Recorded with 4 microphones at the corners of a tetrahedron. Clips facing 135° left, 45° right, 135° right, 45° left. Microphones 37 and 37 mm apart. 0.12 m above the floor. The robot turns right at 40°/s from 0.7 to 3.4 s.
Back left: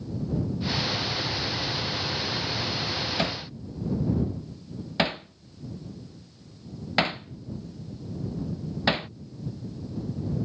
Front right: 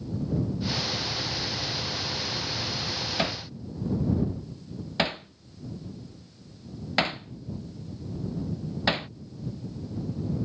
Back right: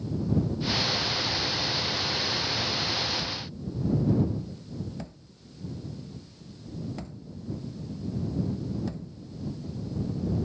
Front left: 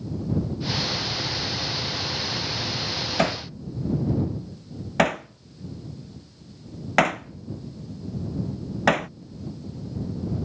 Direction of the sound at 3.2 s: 40° left.